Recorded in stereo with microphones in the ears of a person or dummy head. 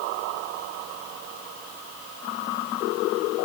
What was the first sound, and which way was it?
Only background noise.